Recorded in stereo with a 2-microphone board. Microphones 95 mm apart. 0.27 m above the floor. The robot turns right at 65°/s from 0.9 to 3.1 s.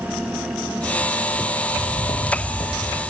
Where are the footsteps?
40° left (ahead or behind), 7.5 m; by 3.0 s 60° left (ahead or behind), 8.5 m.